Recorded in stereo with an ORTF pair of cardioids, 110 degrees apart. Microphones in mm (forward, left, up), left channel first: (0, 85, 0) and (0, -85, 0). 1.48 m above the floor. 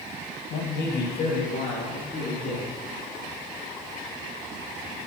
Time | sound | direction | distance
0.5 | a man speaking | 70° left | 2 m